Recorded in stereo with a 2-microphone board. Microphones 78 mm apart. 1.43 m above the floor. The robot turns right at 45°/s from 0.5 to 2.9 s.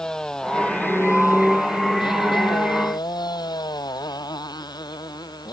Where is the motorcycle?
10° left; by 5.5 s 120° left.